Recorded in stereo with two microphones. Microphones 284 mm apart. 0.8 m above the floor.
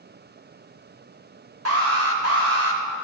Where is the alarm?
60° right (ahead or behind), 1.5 m.